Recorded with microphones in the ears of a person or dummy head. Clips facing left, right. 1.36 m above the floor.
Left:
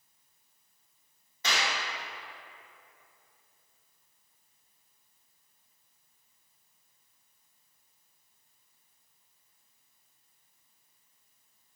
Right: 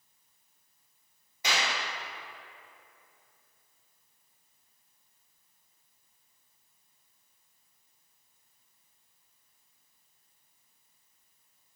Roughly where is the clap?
Centre.